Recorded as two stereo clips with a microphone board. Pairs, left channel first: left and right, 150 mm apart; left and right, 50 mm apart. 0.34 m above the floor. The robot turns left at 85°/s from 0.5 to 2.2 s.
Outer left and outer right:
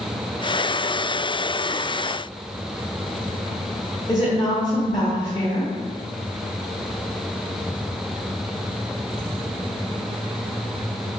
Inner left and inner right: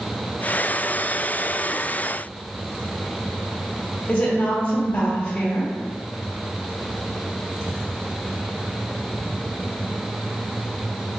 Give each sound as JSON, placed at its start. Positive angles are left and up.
{"t": 4.1, "sound": "a woman speaking", "side_deg": 30, "distance_m": 1.2}